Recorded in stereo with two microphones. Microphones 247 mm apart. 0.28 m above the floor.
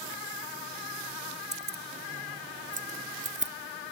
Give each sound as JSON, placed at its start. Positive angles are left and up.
{"t": 1.5, "sound": "keys jangling", "side_deg": -40}